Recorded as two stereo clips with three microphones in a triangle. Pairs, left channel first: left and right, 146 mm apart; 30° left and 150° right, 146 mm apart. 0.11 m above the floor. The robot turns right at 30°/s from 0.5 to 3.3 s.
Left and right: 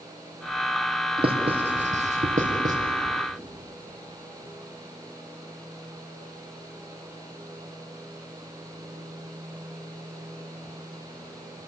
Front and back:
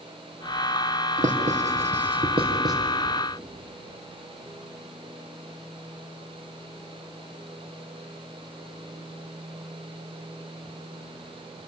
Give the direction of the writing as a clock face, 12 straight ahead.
5 o'clock.